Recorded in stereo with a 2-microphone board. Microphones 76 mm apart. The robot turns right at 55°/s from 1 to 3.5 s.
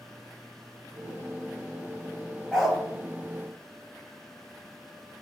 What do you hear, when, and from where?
2.5 s a dog barking: centre (ahead or behind), 0.9 m; by 2.8 s 15° left (ahead or behind), 0.9 m